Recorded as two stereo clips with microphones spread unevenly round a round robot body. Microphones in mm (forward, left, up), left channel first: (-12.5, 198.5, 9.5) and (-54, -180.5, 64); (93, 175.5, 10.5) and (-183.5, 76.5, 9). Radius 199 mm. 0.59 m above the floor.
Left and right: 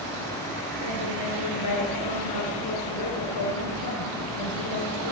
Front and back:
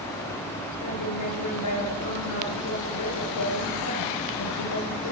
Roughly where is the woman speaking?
Ahead left.